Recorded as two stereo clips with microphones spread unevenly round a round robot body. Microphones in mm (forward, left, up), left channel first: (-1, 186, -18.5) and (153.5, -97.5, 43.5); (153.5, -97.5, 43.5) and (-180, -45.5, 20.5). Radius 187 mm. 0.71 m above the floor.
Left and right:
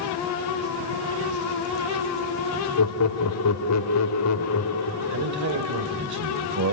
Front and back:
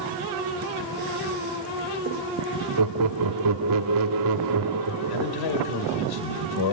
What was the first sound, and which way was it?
Laughter, 150° left.